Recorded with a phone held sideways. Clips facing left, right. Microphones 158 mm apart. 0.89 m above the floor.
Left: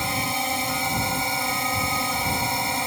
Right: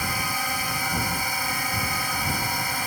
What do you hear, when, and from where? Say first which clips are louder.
0.0 s a drone: left 3 dB; 25° left (ahead or behind)